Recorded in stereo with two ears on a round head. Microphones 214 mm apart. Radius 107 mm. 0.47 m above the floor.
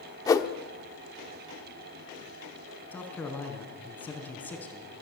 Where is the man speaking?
5° left (ahead or behind), 4.5 m.